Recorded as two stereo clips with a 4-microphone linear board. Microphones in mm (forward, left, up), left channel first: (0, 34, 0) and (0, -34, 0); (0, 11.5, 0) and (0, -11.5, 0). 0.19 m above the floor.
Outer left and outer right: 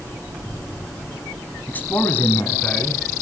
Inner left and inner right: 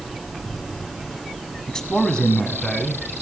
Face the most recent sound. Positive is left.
turn(degrees=25)  # may be behind; listen again after turning